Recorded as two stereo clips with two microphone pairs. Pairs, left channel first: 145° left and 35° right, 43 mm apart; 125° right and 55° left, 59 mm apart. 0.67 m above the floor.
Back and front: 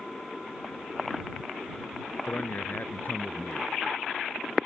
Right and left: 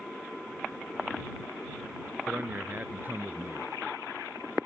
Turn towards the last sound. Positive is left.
turn(degrees=110)